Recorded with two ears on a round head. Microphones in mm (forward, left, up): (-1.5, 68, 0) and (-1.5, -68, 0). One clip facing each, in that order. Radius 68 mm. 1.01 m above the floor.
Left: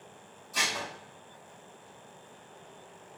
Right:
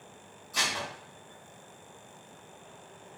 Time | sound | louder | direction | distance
0.5 | dishes clattering | even | 5° left (ahead or behind) | 1.6 m